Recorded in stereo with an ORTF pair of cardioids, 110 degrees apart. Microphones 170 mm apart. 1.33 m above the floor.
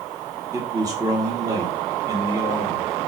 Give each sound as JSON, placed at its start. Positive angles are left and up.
{"t": 0.5, "sound": "a man speaking", "azimuth_deg": -20, "distance_m": 1.3}